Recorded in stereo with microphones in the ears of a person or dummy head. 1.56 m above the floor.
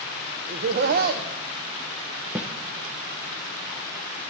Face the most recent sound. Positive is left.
turn(degrees=-5)  # may be behind; listen again after turning